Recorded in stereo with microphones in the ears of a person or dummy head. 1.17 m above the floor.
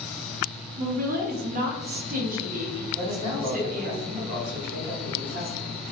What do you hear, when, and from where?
0.8 s a woman speaking: 50° right (ahead or behind), 0.5 m
3.0 s a man speaking: 35° right (ahead or behind), 0.8 m